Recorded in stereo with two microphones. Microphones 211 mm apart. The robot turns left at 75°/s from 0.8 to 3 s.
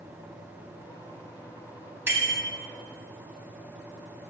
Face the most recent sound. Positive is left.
turn(degrees=-80)